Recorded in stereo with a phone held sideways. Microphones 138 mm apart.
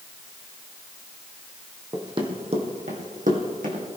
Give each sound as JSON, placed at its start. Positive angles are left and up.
{"t": 1.9, "sound": "running footsteps", "side_deg": -30, "distance_m": 2.0}